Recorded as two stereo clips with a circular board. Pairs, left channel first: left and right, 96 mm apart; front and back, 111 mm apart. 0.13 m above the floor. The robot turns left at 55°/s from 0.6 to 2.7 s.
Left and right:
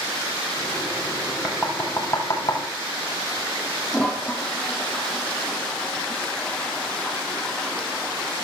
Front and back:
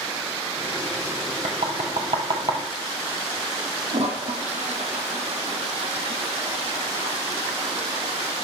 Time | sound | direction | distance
1.4 | knocking | 175° right | 3 m
3.9 | a toilet flushing | 170° left | 3.5 m